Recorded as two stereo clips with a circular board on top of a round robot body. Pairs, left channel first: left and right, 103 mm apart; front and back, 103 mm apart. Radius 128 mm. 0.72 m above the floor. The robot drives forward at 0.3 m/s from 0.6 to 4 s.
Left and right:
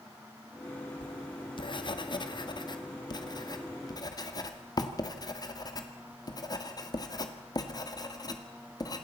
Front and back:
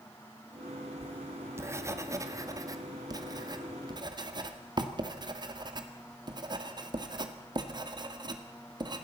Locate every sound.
1.0 s writing: 110° left, 1.6 m; by 9.0 s 140° left, 2 m